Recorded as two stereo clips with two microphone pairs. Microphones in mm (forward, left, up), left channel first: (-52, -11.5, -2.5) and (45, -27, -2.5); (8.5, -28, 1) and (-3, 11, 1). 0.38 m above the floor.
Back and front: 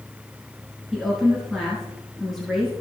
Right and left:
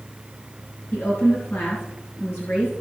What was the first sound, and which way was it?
A woman speaking, 95° right.